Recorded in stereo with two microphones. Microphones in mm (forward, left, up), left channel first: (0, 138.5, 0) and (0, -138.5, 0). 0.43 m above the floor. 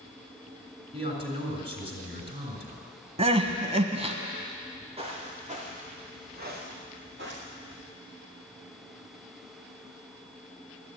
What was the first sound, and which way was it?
A man speaking, 25° right (ahead or behind).